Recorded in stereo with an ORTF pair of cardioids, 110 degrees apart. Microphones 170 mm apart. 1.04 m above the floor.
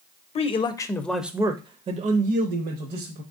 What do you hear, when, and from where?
0.3 s a man speaking: 40° left, 0.7 m; by 3.2 s 70° right, 1.1 m